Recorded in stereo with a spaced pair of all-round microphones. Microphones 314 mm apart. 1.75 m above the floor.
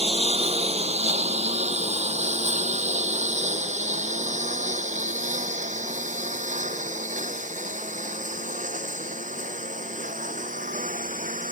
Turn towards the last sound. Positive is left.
turn(degrees=-25)  # may be behind; listen again after turning